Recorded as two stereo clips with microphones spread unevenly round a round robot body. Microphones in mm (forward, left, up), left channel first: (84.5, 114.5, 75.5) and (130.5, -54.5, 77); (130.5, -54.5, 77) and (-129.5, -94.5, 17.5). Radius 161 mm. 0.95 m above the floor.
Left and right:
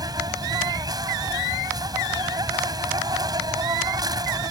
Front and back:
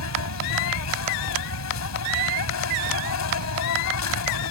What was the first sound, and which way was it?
An insect, 10° right.